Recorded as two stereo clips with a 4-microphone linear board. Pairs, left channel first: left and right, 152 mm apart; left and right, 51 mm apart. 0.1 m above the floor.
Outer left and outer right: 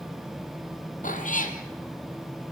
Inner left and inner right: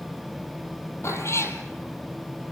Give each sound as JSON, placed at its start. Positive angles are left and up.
{"t": 1.0, "sound": "a cat meowing", "side_deg": 65, "distance_m": 1.8}